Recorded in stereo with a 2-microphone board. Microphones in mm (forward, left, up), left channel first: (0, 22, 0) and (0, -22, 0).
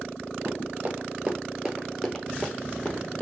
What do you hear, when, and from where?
0.5 s running footsteps: 50° right (ahead or behind), 1.0 m; by 3.2 s 35° left (ahead or behind), 1.2 m